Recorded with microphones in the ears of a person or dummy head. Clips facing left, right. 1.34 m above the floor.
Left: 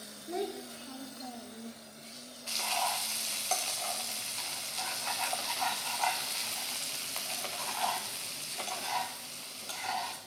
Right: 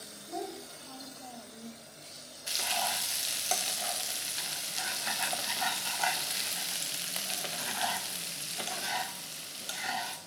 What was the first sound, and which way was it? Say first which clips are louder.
A child speaking: left 3 dB; 40° left (ahead or behind).